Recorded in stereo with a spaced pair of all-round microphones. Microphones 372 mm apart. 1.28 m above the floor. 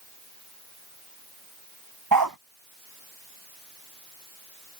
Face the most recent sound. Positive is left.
turn(degrees=-65)  # may be behind; listen again after turning